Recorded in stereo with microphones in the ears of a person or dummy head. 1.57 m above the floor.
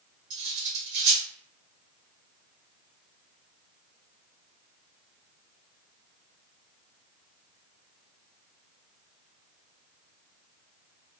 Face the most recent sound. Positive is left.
turn(degrees=-60)  # may be behind; listen again after turning